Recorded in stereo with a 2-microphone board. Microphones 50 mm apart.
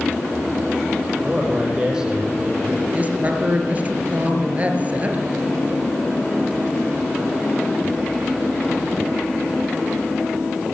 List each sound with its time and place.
1.2 s a man speaking: 15° right (ahead or behind), 9 m
2.9 s a woman speaking: 30° right (ahead or behind), 4 m